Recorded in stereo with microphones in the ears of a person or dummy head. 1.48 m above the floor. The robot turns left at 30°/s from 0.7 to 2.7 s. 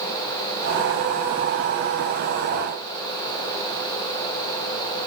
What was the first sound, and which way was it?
Only background noise.